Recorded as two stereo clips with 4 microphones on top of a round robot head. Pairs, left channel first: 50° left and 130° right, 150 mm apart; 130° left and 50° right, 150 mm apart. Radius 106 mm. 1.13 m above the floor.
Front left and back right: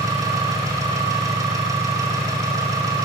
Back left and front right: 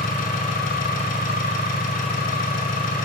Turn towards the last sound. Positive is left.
turn(degrees=160)